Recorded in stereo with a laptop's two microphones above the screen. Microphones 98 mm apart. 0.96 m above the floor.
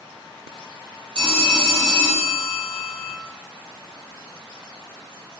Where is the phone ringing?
55° right (ahead or behind), 1.5 m.